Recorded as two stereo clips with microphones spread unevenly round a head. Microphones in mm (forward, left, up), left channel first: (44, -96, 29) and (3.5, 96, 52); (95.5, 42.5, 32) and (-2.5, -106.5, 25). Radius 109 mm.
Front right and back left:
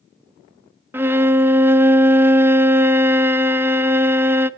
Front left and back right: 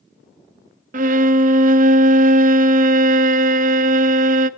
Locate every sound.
0.9 s a violin: 175° right, 0.7 m